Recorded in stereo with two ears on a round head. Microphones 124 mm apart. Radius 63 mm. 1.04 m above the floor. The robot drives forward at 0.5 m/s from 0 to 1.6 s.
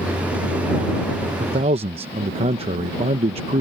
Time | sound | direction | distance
1.4 | a man speaking | 50° right (ahead or behind) | ?